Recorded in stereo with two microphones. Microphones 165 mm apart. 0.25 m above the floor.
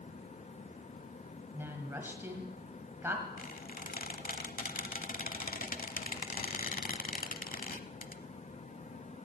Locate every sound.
1.5 s a woman speaking: 15° right (ahead or behind), 1.4 m
3.4 s a squeak: 60° left (ahead or behind), 0.8 m